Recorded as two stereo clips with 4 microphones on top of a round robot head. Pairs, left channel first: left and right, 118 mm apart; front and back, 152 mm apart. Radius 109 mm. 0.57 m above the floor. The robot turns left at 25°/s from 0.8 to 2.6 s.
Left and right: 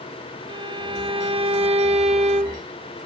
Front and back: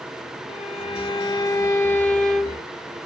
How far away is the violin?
About 0.7 m.